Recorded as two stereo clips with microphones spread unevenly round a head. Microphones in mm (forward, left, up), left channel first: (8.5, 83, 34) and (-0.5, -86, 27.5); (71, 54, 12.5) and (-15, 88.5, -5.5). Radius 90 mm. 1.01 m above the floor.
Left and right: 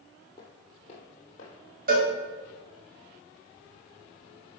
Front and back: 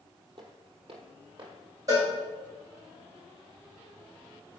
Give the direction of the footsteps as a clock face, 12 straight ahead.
7 o'clock.